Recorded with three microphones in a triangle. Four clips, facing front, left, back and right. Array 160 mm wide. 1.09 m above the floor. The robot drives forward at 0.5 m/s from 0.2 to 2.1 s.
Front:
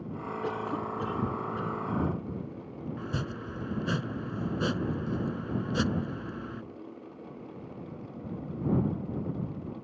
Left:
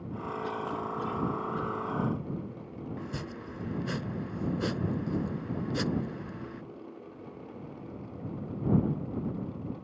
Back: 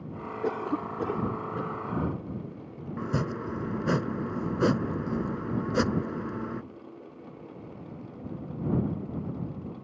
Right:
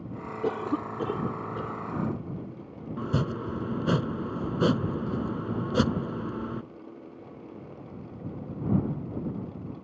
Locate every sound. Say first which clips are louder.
0.4 s a cough: right 8 dB, back 4 dB; 125° right; by 1.8 s 140° right
3.0 s chopping: right 9 dB, back 8 dB; 135° right